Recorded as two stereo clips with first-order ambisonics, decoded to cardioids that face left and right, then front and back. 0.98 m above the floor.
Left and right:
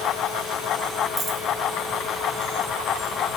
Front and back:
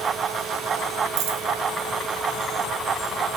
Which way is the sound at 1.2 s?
175° right.